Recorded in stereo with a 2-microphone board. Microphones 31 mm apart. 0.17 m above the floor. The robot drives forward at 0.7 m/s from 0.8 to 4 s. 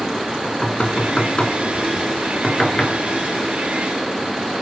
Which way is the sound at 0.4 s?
35° left (ahead or behind).